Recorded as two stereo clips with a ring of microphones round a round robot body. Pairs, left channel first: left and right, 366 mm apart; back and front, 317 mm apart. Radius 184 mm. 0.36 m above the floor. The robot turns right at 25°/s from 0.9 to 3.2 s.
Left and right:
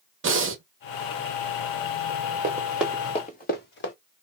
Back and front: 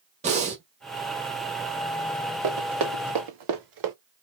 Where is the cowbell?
I don't hear a cowbell.